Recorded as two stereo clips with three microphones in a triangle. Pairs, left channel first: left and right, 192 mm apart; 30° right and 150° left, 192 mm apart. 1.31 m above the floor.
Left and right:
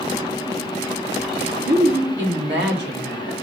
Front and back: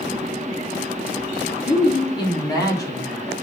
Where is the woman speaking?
90° right, 3.5 m; by 3.3 s 105° right, 3 m.